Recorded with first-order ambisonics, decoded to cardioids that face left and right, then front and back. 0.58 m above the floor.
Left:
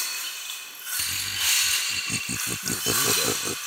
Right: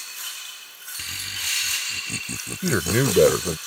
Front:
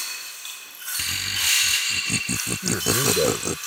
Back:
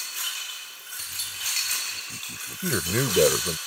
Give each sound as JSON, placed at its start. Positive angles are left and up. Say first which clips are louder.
{"t": 1.0, "sound": "laughter", "louder": "left 2 dB, front 8 dB", "azimuth_deg": 5}
{"t": 2.6, "sound": "a man speaking", "louder": "right 4 dB, front 2 dB", "azimuth_deg": -105}